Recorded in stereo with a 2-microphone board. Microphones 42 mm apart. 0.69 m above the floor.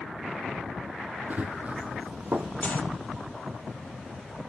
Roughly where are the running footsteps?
Right.